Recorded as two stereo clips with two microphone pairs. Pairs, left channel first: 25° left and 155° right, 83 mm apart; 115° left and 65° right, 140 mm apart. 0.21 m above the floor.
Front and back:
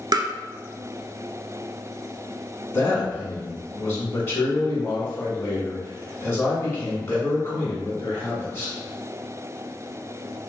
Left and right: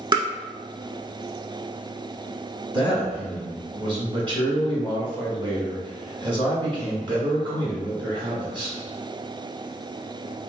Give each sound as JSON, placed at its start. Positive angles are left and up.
{"t": 0.1, "sound": "tapping", "azimuth_deg": -125, "distance_m": 0.5}
{"t": 2.7, "sound": "a man speaking", "azimuth_deg": -30, "distance_m": 1.7}